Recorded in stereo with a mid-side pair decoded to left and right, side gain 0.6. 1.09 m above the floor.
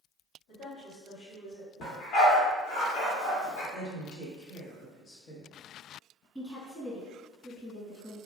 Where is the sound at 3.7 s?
65° left, 1.1 m.